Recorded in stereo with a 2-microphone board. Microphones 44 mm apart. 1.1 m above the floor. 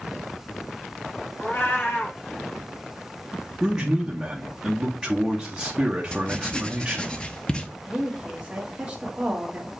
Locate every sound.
1.4 s a cat meowing: 50° left (ahead or behind), 2.5 m
3.6 s a man speaking: 15° right (ahead or behind), 1.1 m
6.1 s writing: 20° left (ahead or behind), 0.6 m
7.8 s a woman speaking: 25° right (ahead or behind), 1.8 m